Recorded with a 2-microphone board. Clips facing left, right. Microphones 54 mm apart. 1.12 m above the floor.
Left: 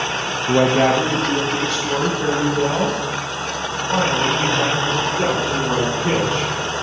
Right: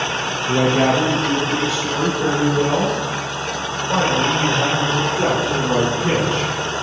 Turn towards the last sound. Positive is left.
turn(degrees=-15)  # may be behind; listen again after turning